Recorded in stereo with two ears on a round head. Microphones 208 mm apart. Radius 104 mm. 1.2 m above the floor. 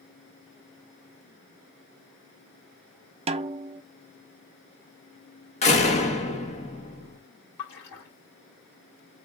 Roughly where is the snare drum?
Right.